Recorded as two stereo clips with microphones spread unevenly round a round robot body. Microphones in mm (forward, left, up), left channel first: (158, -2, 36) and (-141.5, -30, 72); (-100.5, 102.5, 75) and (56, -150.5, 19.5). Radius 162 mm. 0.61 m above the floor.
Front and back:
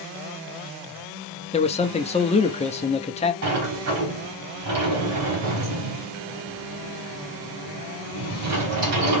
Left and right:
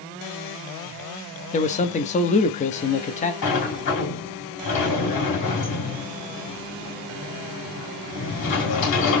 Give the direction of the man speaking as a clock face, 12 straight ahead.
10 o'clock.